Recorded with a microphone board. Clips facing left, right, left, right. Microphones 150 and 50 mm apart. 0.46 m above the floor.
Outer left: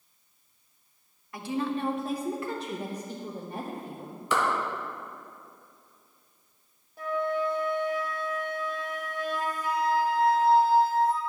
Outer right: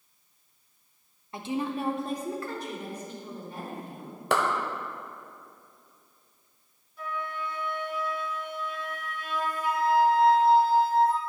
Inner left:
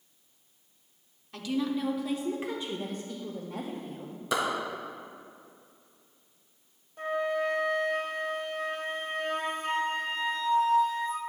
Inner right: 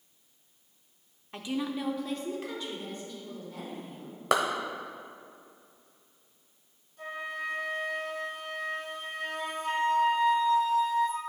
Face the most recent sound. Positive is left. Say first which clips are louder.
# outer left 7 dB, inner left 7 dB
turn(degrees=50)  # may be behind; listen again after turning